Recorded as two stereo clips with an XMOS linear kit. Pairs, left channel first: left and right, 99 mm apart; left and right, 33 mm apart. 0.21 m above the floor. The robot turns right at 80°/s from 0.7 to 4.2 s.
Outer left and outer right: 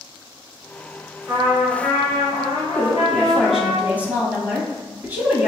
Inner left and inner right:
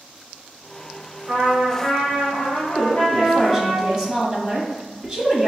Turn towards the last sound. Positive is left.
turn(degrees=-20)  # may be behind; listen again after turning